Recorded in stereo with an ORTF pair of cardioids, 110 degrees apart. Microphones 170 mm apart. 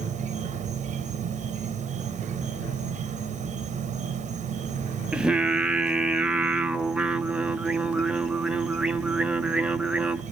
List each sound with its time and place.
0.0 s an insect: 45° right, 0.9 m
5.1 s singing: 5° right, 0.6 m